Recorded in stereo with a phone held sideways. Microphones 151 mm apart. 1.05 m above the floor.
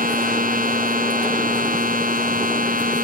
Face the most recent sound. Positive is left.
turn(degrees=-65)  # may be behind; listen again after turning